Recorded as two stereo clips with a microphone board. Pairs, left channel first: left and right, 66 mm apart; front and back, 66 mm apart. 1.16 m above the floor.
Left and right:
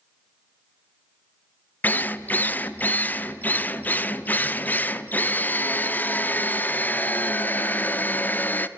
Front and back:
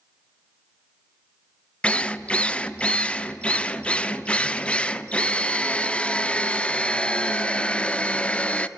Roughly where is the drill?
Ahead left.